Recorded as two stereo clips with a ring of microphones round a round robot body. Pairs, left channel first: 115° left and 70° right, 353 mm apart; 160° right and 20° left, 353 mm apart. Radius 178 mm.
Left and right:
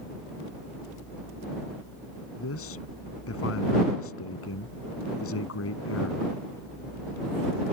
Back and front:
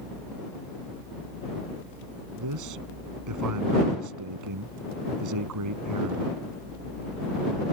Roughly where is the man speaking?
Ahead left.